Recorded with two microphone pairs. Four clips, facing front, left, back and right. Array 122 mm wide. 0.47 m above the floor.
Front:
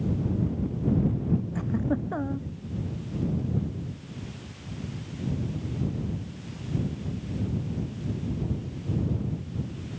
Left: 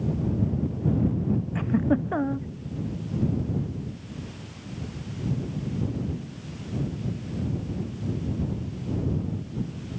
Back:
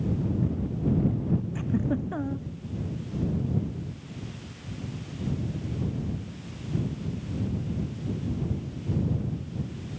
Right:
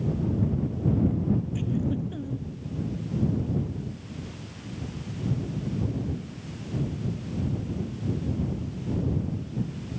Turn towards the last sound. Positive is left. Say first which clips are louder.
# left 5 dB, even
turn(degrees=80)